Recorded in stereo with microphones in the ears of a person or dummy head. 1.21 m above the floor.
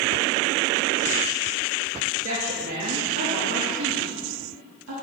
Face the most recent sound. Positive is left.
turn(degrees=-85)